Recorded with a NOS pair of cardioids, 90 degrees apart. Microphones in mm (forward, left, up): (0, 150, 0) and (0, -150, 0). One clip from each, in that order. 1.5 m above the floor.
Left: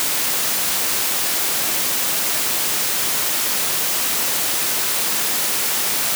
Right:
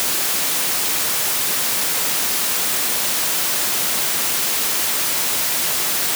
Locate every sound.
Only background noise.